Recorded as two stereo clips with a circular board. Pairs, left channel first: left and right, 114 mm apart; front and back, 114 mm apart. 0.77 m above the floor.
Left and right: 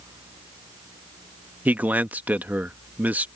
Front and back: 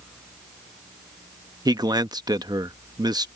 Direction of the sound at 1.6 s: 160° right.